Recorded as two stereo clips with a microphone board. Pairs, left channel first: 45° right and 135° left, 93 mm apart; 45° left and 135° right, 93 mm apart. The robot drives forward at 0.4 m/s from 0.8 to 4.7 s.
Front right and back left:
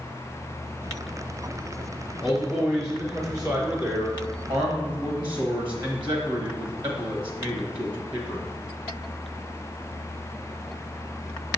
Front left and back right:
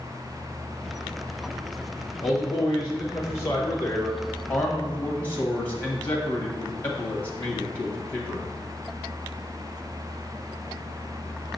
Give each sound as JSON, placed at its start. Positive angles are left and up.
{"t": 2.2, "sound": "a man speaking", "azimuth_deg": 70, "distance_m": 1.4}